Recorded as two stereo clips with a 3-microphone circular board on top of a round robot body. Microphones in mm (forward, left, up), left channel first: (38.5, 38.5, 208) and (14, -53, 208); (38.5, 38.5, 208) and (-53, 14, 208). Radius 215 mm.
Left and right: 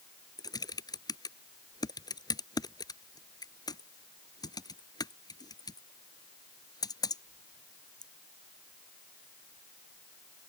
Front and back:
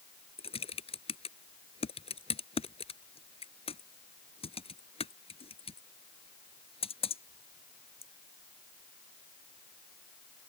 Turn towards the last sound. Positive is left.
turn(degrees=25)